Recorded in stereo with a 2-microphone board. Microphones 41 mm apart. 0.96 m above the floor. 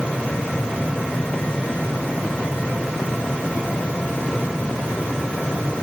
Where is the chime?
I don't hear a chime.